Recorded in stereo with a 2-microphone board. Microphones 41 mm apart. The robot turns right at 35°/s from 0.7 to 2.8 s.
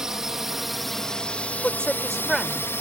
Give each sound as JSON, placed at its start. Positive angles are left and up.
{"t": 0.0, "sound": "a drone", "side_deg": -15}
{"t": 1.6, "sound": "a woman speaking", "azimuth_deg": 150}